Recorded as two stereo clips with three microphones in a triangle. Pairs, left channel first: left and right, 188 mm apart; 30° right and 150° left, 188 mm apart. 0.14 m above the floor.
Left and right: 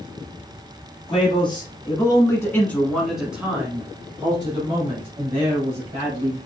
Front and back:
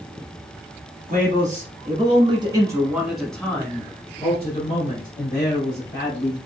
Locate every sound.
1.1 s a man speaking: 140° left, 1.5 m; by 6.4 s 45° right, 1.9 m